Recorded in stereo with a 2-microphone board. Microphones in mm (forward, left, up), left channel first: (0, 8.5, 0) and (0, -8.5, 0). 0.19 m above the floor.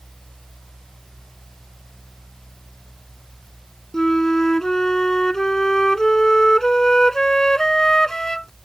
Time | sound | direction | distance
3.9 | a flute | 30° left (ahead or behind) | ?